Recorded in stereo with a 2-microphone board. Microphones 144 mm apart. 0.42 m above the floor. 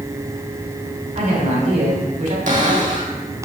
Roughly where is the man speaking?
Right.